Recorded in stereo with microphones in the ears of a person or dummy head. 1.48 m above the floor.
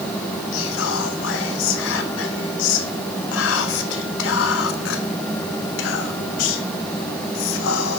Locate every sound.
0.5 s whispering: 70° left (ahead or behind), 0.8 m